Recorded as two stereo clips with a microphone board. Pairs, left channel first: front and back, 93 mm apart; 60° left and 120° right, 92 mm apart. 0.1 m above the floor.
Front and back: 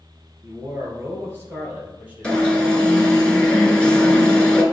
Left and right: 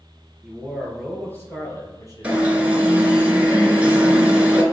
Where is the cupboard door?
No cupboard door in this recording.